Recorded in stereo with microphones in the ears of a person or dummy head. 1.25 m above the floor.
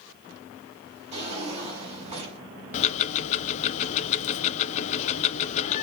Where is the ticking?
40° left (ahead or behind), 0.5 m.